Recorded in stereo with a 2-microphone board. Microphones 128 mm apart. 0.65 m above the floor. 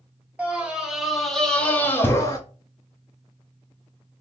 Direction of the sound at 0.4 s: 10° right (ahead or behind).